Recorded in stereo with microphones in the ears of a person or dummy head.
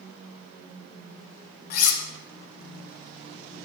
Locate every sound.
1.7 s cutlery clinking: 60° left (ahead or behind), 0.5 m